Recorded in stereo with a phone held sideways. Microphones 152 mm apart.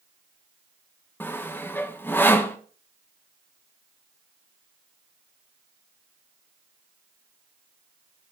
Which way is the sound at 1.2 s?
15° left (ahead or behind).